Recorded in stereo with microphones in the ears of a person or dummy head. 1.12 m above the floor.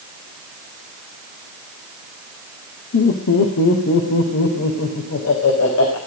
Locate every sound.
2.9 s laughter: 65° left (ahead or behind), 2.5 m; by 6.0 s 80° left, 5 m